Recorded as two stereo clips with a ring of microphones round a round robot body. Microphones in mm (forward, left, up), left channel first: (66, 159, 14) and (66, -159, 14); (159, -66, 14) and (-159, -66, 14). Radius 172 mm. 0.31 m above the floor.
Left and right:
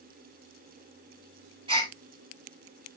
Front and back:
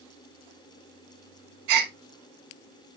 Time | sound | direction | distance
1.7 | a gasp | 165° right | 4 m